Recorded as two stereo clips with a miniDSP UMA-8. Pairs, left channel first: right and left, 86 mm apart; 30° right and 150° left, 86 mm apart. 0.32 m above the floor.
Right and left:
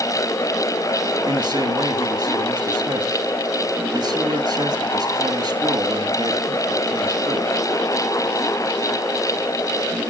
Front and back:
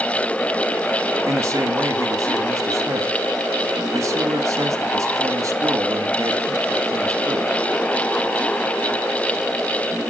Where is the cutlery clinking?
I don't hear cutlery clinking.